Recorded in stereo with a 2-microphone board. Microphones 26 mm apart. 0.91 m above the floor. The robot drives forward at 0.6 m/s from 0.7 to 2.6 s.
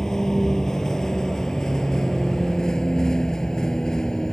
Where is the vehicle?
25° left (ahead or behind); by 4.3 s 30° left (ahead or behind).